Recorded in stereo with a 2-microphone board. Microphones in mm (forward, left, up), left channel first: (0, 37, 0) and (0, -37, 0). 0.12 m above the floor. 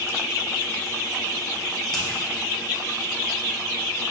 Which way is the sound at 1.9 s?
5° left (ahead or behind).